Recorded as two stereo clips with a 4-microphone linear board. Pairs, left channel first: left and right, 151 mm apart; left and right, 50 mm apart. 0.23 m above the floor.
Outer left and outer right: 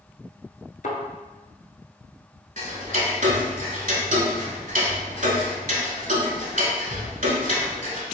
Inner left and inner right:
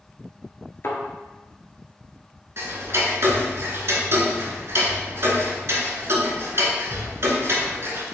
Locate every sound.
0.8 s a thud: 60° left (ahead or behind), 0.8 m
2.6 s ticking: 60° right (ahead or behind), 0.7 m